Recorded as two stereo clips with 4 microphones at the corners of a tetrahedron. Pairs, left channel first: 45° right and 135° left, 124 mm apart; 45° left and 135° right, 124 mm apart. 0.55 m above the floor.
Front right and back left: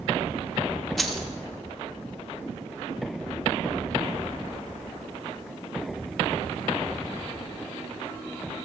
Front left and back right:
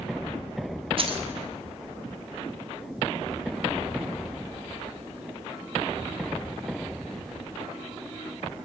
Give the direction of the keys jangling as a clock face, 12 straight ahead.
4 o'clock.